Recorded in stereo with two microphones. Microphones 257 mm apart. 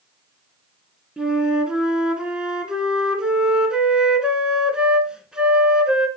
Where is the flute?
5° right (ahead or behind), 1.7 m.